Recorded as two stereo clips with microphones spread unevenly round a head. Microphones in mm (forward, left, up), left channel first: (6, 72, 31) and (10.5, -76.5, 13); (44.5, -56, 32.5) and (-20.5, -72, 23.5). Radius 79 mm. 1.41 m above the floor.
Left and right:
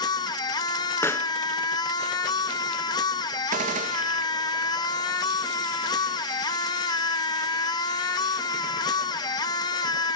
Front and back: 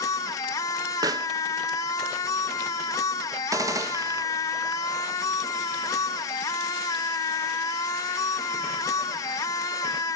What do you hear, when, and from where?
0.0 s a machine running: 40° left, 0.9 m
1.0 s a pop: 170° left, 0.8 m
3.5 s a gunshot: 130° right, 1.8 m